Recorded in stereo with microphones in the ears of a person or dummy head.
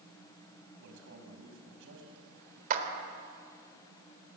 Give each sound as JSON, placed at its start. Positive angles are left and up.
{"t": 0.8, "sound": "a man speaking", "side_deg": -75, "distance_m": 6.0}
{"t": 2.7, "sound": "a clap", "side_deg": -40, "distance_m": 3.5}